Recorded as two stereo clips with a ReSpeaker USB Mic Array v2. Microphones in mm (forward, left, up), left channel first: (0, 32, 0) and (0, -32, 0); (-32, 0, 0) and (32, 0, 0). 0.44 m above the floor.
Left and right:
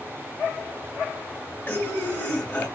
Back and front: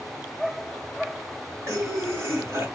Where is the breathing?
35° left, 1.8 m.